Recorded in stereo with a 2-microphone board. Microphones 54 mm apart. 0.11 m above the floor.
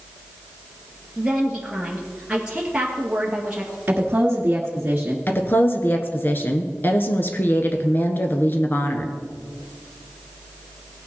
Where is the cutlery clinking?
I don't hear cutlery clinking.